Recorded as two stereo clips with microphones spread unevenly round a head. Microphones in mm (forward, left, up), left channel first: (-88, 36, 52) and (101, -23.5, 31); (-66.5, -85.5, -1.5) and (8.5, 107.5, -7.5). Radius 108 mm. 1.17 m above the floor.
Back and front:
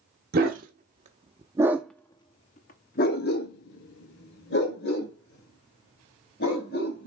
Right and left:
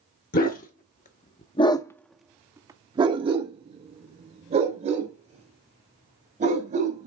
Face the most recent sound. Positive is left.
turn(degrees=125)